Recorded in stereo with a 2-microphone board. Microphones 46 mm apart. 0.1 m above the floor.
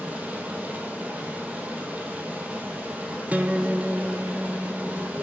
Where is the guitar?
30° right (ahead or behind), 0.6 m.